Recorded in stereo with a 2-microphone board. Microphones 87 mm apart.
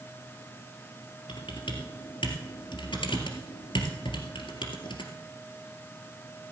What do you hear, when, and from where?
1.3 s typing on a keyboard: 70° left (ahead or behind), 1.9 m